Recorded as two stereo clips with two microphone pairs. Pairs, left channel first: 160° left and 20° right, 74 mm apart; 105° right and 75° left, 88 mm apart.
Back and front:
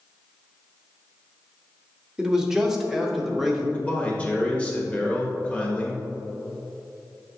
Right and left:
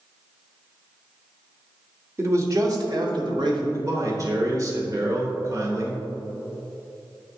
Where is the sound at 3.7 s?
95° left, 1.1 m.